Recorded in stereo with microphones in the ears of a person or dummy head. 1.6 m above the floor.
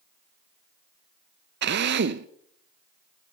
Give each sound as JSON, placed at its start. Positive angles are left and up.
{"t": 1.6, "sound": "a drill", "side_deg": -50, "distance_m": 0.5}